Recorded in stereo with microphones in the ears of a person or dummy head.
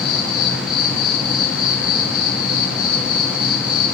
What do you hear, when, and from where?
0.0 s an insect: 5° right (ahead or behind), 0.7 m